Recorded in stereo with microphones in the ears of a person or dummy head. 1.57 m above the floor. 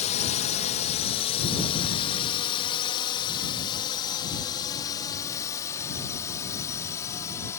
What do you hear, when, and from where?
0.0 s a drone: 40° left (ahead or behind); by 7.6 s 15° left (ahead or behind)